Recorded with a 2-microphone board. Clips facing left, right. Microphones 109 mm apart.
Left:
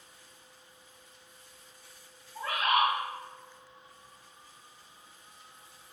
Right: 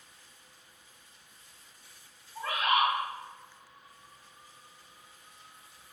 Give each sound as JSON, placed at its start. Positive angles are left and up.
{"t": 2.4, "sound": "a bird", "side_deg": 10, "distance_m": 1.8}